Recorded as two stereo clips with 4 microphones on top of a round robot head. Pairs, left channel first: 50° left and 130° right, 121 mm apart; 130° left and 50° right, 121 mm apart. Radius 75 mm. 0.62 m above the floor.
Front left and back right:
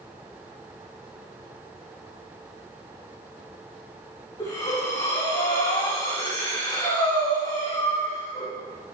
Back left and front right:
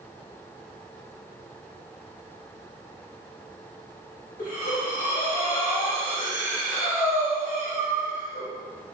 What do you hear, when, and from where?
4.4 s breathing: 105° left, 4.5 m